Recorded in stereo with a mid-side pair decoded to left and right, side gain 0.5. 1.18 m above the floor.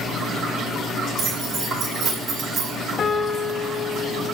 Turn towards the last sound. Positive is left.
turn(degrees=50)